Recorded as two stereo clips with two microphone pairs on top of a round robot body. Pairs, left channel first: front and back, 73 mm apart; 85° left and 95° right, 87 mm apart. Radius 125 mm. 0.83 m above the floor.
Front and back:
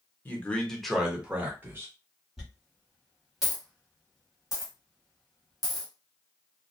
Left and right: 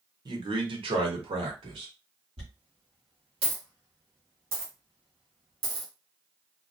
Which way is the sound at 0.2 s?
55° right.